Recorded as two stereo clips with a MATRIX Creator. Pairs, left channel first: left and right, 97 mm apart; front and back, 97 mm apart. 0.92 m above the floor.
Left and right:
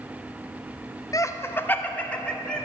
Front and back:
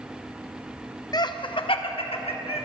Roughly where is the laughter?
Ahead left.